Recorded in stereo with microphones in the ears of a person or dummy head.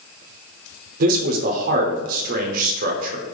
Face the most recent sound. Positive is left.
turn(degrees=-50)  # may be behind; listen again after turning